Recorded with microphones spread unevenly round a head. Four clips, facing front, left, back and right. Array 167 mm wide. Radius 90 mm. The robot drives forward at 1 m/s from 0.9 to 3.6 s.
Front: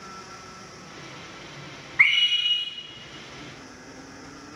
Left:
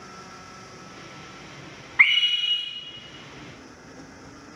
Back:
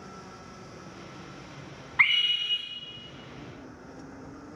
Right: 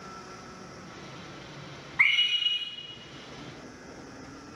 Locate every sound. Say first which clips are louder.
2.0 s a scream: left 5 dB, front 3 dB; 175° left, 0.7 m; by 2.6 s straight behind, 1.2 m